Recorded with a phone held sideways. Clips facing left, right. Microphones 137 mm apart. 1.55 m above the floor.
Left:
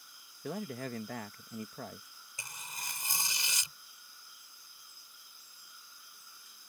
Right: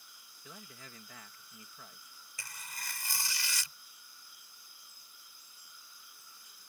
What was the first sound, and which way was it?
A man speaking, 60° left (ahead or behind).